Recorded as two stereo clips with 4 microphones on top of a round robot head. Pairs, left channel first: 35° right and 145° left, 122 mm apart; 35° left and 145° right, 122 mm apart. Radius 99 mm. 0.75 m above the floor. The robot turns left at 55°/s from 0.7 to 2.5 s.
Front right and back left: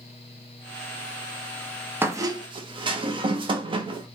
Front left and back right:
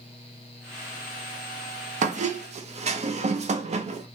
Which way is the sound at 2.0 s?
140° right.